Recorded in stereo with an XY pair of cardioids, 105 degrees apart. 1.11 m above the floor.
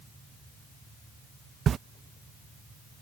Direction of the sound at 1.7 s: 50° right.